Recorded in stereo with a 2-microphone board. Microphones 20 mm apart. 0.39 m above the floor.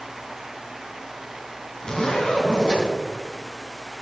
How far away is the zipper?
About 4 m.